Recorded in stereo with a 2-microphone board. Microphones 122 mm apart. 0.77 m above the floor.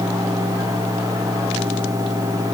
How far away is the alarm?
No alarm in this recording.